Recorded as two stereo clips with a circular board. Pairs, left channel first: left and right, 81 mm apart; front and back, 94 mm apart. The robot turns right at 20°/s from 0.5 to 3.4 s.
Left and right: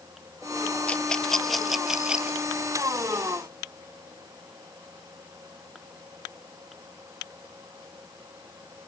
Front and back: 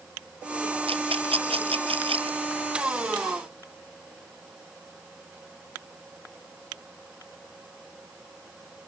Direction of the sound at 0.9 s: 165° left.